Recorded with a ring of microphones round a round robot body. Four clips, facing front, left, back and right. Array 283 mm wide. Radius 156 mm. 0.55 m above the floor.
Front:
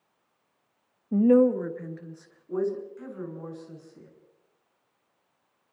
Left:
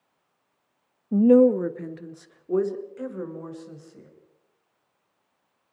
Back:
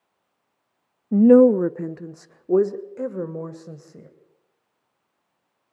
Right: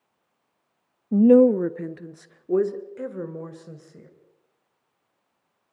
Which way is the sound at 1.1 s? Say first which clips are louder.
Right 2 dB, back 7 dB; 160° right.